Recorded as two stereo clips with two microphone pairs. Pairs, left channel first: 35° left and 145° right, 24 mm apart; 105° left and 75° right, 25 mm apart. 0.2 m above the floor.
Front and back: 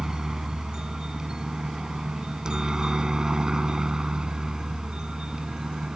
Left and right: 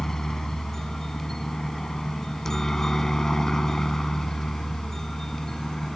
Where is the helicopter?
165° left; by 6.0 s 170° left.